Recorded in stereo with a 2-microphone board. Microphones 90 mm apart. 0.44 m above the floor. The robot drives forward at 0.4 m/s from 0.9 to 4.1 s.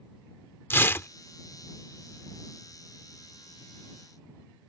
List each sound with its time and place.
0.7 s tearing paper: 25° left (ahead or behind)